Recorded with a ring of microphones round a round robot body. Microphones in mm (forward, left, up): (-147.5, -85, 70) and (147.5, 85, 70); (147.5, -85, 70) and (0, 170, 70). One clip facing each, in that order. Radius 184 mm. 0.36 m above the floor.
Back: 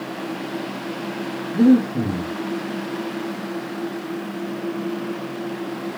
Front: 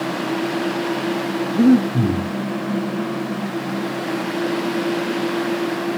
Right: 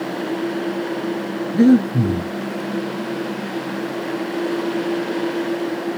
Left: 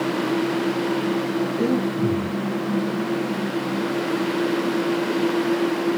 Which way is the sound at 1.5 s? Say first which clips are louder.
Even, right 12 dB; 45° right.